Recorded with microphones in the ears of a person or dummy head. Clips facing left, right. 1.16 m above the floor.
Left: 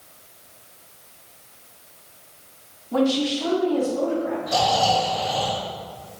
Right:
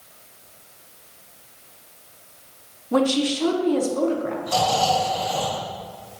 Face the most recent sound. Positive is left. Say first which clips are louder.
# even
turn(degrees=-60)  # may be behind; listen again after turning